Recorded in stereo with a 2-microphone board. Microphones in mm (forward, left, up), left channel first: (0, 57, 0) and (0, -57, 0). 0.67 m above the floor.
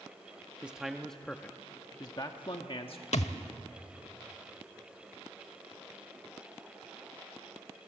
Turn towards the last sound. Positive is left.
turn(degrees=75)  # may be behind; listen again after turning